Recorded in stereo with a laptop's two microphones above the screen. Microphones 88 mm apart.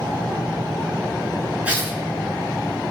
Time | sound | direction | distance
1.6 | tearing paper | 15° right (ahead or behind) | 7.5 m